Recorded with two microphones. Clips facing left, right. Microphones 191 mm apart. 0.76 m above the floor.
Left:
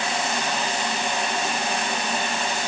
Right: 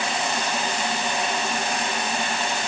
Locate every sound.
Only background noise.